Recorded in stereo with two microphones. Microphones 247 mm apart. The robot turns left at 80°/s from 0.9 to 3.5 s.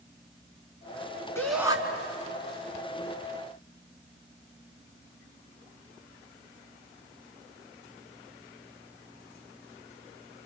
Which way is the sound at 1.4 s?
15° left.